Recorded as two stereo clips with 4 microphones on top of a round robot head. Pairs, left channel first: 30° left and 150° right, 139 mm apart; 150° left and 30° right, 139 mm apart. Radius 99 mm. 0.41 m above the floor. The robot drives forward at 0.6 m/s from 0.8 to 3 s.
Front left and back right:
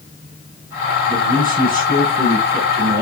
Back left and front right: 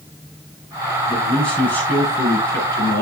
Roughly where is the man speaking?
Behind right.